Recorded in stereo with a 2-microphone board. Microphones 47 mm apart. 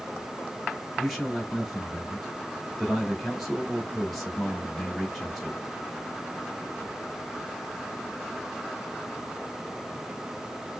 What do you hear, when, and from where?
1.0 s a man speaking: centre (ahead or behind), 1.5 m